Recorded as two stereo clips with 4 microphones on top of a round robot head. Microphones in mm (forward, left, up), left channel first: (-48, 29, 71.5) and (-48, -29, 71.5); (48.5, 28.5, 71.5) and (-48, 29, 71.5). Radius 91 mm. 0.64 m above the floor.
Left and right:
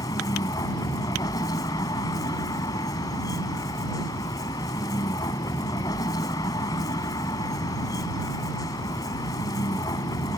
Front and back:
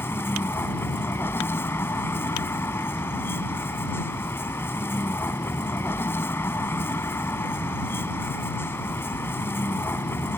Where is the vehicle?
65° left.